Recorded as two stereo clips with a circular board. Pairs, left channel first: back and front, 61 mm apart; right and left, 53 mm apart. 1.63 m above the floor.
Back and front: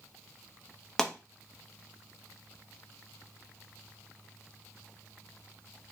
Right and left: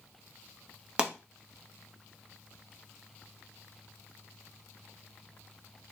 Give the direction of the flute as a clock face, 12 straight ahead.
I don't hear a flute.